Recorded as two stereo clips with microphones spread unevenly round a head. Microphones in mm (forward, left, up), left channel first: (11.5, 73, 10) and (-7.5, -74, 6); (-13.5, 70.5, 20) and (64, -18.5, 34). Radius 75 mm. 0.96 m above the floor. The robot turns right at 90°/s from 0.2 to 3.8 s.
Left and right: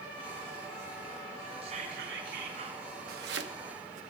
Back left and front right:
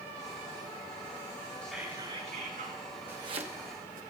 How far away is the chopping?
About 1.1 m.